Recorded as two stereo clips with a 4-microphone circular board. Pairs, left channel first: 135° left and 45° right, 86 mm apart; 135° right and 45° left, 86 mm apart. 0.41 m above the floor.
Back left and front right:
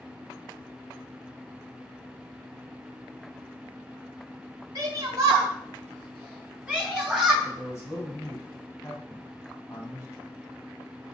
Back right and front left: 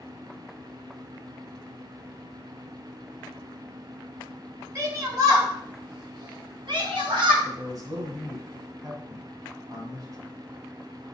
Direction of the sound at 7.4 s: 80° left.